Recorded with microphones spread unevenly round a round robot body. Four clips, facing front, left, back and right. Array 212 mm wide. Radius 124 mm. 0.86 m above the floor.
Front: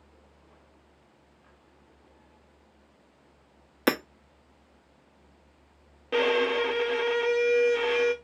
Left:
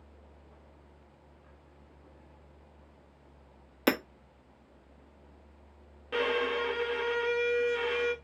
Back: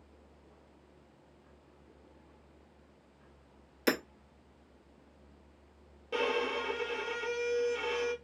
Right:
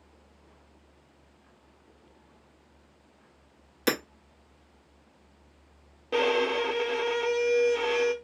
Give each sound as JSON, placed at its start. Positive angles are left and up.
{"t": 3.9, "sound": "hammering", "azimuth_deg": 10, "distance_m": 0.8}
{"t": 6.1, "sound": "a violin", "azimuth_deg": -45, "distance_m": 0.8}